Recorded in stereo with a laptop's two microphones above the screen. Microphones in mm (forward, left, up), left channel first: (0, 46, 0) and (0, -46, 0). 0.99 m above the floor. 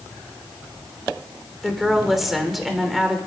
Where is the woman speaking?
Centre (ahead or behind), 3 m.